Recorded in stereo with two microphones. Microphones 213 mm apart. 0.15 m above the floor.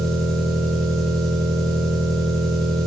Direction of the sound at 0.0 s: Centre (ahead or behind).